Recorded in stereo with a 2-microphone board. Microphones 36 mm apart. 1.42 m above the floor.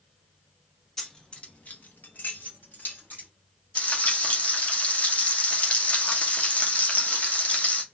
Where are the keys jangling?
15° left (ahead or behind), 0.9 m; by 3.3 s 60° left (ahead or behind), 1.9 m.